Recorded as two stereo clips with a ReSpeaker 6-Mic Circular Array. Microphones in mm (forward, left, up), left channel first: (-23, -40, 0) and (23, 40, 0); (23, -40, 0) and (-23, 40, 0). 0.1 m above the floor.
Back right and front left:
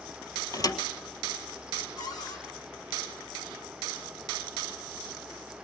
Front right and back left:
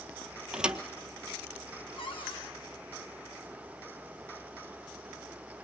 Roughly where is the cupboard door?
Right.